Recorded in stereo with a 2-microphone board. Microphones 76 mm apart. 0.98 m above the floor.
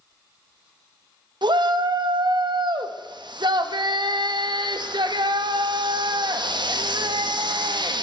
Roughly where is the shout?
Right.